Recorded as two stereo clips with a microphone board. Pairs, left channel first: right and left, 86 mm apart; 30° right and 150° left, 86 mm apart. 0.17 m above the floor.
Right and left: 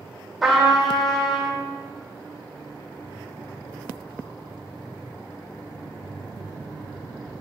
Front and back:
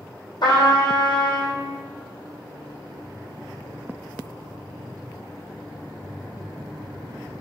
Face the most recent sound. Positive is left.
turn(degrees=0)